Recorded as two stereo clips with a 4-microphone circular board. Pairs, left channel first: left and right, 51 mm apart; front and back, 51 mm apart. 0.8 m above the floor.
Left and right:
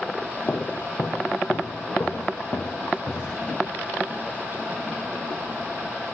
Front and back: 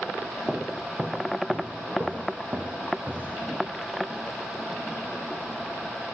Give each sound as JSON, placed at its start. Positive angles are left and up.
{"t": 0.5, "sound": "footsteps", "azimuth_deg": 115, "distance_m": 1.4}